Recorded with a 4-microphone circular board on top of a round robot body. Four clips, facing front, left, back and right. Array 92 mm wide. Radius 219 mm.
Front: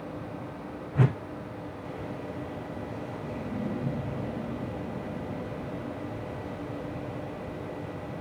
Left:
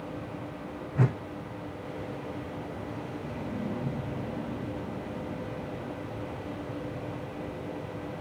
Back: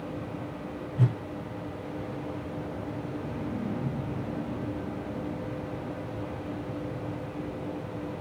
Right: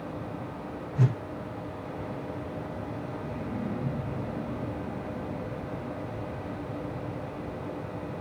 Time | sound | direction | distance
0.9 | a whoosh | 35° left | 0.6 m